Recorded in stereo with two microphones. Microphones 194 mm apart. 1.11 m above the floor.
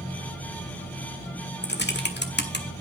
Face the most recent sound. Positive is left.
turn(degrees=65)  # may be behind; listen again after turning